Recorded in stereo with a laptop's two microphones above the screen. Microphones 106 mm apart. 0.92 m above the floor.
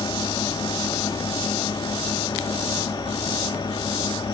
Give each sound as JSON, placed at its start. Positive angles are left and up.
{"t": 0.0, "sound": "a fan", "side_deg": 45, "distance_m": 1.5}